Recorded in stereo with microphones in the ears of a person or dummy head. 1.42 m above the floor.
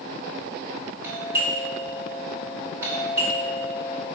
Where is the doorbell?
20° right (ahead or behind), 3 m.